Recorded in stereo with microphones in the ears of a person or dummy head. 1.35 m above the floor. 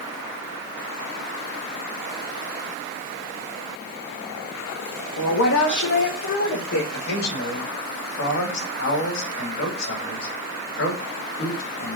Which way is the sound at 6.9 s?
65° left (ahead or behind).